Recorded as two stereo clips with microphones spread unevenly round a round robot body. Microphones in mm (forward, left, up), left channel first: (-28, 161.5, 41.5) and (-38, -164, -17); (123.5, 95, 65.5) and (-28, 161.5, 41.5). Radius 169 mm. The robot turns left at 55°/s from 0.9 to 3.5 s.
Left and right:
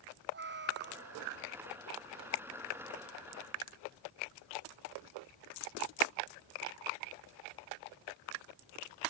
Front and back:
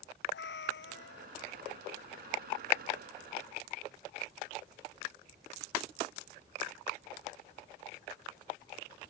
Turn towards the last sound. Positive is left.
turn(degrees=-175)